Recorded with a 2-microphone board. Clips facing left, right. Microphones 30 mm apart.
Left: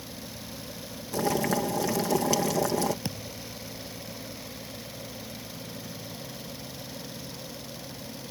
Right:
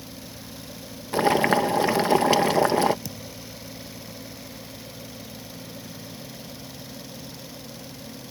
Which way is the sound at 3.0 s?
40° left (ahead or behind).